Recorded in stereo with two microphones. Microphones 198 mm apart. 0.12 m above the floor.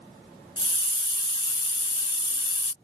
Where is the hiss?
25° left (ahead or behind).